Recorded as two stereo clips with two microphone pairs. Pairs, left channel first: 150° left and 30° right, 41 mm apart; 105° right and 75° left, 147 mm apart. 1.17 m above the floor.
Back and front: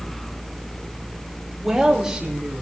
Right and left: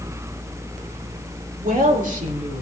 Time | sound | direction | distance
1.6 | a woman speaking | 55° left | 2.5 m